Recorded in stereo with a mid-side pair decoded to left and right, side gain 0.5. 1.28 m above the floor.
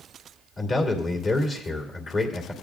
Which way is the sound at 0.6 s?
35° left.